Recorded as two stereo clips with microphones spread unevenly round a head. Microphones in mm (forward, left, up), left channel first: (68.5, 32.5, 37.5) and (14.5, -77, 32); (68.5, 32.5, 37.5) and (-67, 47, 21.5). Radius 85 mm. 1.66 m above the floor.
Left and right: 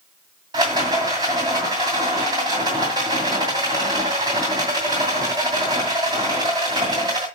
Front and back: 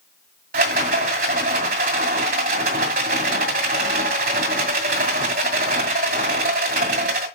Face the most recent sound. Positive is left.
turn(degrees=180)